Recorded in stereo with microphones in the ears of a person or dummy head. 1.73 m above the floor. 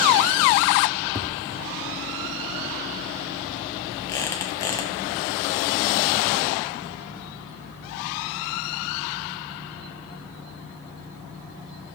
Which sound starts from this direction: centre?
Tapping, at 1.1 s.